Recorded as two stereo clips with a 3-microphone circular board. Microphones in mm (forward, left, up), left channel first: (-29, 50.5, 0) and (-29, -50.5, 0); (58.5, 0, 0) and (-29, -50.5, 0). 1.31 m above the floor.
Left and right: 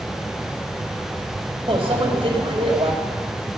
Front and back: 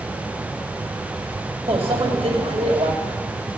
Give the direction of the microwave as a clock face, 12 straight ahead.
4 o'clock.